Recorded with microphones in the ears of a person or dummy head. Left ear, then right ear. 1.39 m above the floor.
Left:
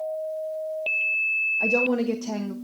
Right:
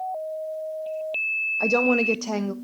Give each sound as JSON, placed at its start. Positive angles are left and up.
{"t": 1.6, "sound": "a woman speaking", "side_deg": -30, "distance_m": 0.6}